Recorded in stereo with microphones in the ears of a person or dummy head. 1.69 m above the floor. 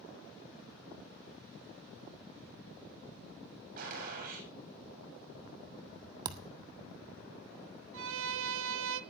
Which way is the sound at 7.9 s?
85° right.